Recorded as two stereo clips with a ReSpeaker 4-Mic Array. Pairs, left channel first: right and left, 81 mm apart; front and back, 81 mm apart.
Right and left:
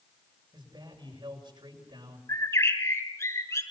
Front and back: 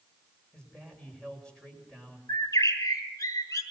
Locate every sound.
0.5 s a man speaking: 75° left, 7 m
2.3 s a bird: 40° right, 3 m